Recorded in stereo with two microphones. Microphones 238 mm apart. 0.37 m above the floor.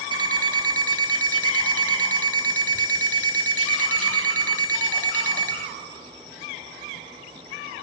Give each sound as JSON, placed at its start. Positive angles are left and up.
{"t": 0.1, "sound": "an alarm clock", "side_deg": -70, "distance_m": 1.2}